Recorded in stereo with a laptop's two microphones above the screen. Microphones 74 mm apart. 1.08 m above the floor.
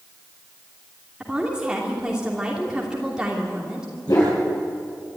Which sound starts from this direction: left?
A dog barking, at 4.1 s.